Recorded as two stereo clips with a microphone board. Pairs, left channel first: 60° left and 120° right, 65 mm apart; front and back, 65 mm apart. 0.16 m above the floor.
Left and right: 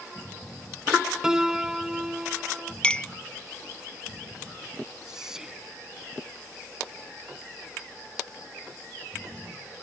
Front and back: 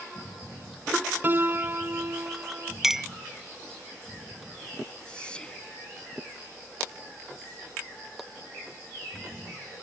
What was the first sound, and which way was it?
A piano, 165° left.